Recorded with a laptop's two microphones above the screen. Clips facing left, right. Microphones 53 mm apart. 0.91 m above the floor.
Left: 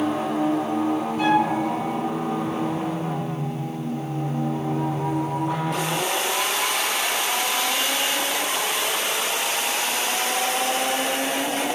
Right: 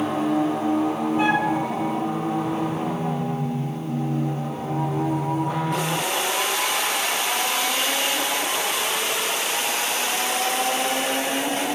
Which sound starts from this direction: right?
A flute, at 1.2 s.